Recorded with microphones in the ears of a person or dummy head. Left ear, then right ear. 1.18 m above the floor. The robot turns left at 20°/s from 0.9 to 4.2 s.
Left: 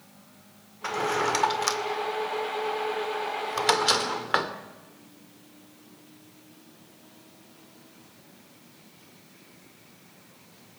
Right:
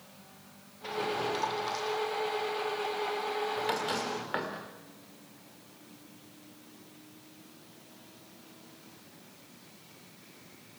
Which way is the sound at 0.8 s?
55° left (ahead or behind).